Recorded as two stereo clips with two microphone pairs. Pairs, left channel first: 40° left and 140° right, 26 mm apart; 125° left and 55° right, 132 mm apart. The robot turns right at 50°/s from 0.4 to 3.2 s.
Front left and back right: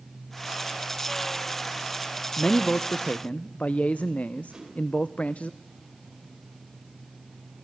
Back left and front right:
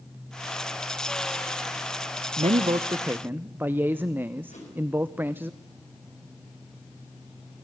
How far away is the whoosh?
About 6 m.